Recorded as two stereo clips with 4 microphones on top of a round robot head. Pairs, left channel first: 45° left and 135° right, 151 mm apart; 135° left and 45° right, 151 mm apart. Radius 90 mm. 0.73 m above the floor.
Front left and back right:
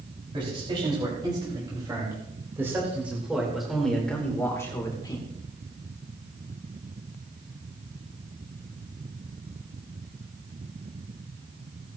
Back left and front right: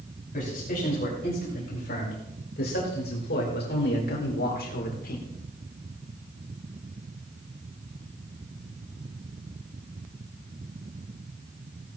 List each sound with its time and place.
0.3 s a man speaking: 165° left, 5 m; by 5.3 s 105° left, 2.5 m